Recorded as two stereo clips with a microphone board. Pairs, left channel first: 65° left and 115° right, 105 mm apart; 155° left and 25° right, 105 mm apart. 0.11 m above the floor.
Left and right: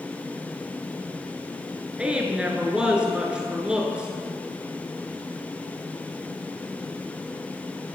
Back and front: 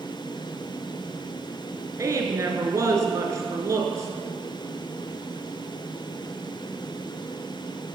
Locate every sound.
2.0 s a woman speaking: 40° right, 1.5 m